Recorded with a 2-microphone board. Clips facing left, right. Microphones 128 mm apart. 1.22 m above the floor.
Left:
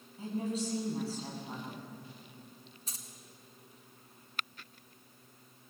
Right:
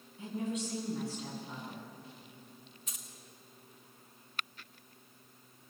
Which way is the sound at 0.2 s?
35° left (ahead or behind).